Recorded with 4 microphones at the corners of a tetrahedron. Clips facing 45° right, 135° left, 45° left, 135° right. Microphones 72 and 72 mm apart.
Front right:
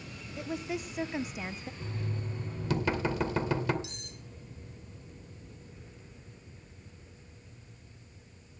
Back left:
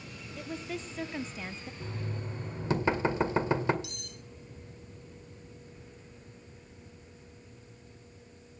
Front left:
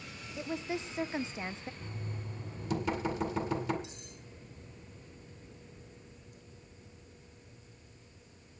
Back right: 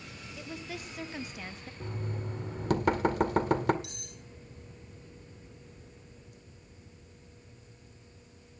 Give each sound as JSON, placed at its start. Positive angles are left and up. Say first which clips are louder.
{"t": 0.4, "sound": "a woman speaking", "louder": "front right 3 dB, front left 6 dB", "azimuth_deg": 15, "distance_m": 0.5}
{"t": 1.8, "sound": "knocking", "louder": "back left 1 dB, back right 5 dB", "azimuth_deg": -165, "distance_m": 1.8}
{"t": 3.8, "sound": "cutlery clinking", "louder": "back left 1 dB, back right 1 dB", "azimuth_deg": -110, "distance_m": 3.0}